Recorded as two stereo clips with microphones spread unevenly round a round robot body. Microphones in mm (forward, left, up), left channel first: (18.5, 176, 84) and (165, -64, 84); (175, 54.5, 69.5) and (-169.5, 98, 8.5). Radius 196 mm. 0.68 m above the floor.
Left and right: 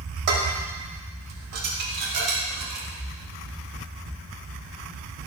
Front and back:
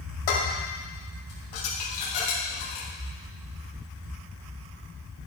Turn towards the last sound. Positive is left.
turn(degrees=-45)